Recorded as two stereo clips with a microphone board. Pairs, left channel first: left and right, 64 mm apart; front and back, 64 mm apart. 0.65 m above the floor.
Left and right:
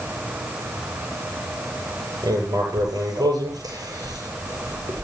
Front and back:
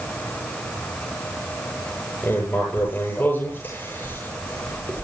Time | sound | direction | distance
2.2 | writing | 60° right | 10 m